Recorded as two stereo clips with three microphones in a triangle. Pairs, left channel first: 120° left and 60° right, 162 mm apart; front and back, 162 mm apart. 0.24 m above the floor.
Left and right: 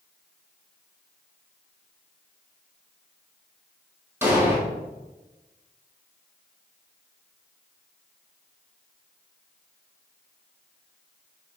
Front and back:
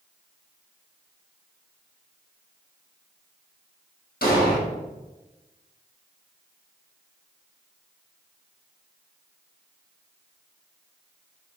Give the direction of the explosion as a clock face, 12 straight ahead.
11 o'clock.